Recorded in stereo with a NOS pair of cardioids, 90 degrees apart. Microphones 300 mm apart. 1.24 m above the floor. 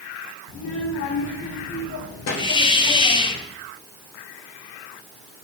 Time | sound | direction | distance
0.5 | a child speaking | 65° left | 2.5 m
2.4 | a hiss | 15° left | 0.8 m